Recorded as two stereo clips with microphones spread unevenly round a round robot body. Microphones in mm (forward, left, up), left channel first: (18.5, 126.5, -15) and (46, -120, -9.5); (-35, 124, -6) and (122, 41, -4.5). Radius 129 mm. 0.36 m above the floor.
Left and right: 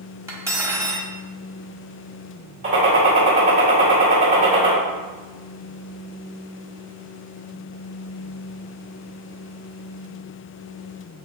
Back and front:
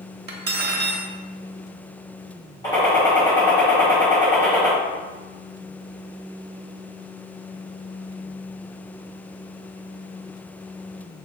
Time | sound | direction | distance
0.3 | cutlery clinking | 5° right | 1.0 m
2.6 | a gunshot | 140° right | 2 m